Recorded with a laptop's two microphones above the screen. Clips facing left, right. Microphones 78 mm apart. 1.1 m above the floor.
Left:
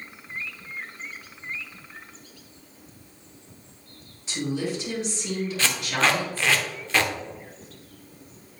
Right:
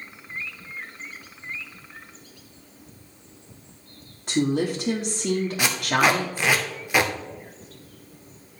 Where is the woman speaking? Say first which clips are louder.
Right 5 dB; 55° right (ahead or behind), 1.2 m.